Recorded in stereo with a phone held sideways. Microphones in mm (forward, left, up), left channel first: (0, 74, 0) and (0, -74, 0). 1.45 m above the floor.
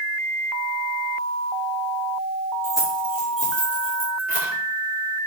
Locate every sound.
2.6 s keys jangling: 15° left (ahead or behind), 2 m; by 4.5 s 75° left (ahead or behind), 3 m